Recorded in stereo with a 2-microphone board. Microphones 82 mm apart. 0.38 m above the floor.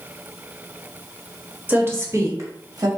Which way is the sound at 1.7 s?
25° right (ahead or behind).